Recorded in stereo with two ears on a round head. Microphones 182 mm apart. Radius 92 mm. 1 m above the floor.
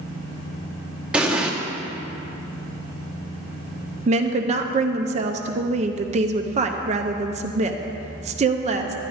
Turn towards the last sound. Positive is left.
turn(degrees=-35)  # may be behind; listen again after turning